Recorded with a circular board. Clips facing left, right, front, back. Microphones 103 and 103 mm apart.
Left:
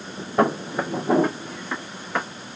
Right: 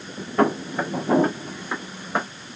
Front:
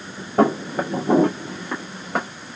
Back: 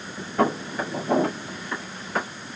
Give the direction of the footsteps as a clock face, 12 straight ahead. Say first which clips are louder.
Even, front 5 dB; 11 o'clock.